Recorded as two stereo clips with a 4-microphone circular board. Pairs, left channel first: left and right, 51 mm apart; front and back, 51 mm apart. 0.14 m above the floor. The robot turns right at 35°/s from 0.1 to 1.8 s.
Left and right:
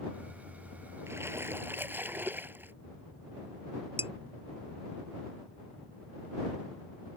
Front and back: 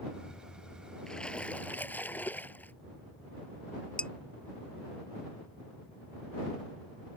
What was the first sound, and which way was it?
A splash, 75° right.